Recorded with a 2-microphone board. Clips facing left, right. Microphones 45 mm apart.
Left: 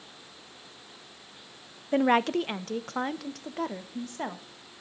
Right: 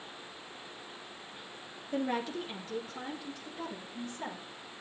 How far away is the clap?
I don't hear a clap.